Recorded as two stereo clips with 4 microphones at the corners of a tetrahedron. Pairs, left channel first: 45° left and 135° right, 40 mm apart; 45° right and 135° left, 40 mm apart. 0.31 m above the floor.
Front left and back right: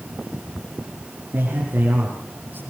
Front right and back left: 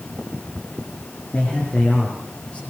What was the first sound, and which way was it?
A man speaking, 100° right.